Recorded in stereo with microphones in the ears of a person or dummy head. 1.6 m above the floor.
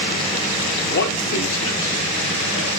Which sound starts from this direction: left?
A man speaking, at 0.8 s.